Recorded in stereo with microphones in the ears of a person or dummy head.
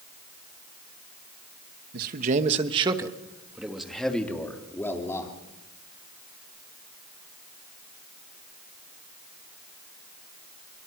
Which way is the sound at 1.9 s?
55° right (ahead or behind).